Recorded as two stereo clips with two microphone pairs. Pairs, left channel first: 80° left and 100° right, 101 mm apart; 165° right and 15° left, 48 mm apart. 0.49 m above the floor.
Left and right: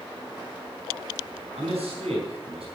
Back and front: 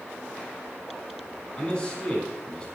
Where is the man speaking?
95° right, 5 m.